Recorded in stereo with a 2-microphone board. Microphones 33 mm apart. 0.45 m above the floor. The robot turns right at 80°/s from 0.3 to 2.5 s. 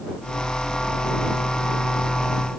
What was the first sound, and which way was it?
Only background noise.